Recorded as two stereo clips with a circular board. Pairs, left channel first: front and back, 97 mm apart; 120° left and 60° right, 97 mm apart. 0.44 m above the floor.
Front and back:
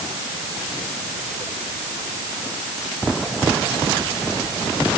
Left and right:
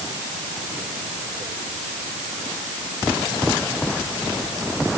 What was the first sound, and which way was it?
Only background noise.